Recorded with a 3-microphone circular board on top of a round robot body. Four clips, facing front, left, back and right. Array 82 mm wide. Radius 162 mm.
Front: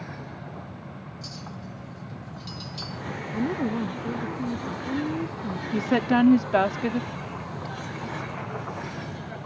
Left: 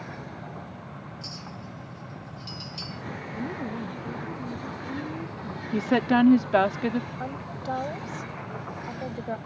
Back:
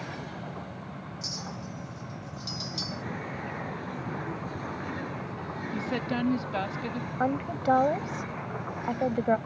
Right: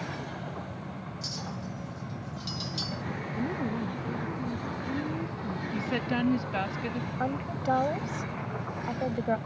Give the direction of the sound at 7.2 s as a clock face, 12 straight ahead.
6 o'clock.